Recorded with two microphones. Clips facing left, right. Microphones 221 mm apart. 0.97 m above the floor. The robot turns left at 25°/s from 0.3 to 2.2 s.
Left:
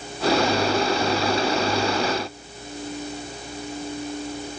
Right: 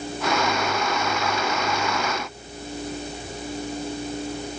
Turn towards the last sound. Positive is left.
No sound to turn to.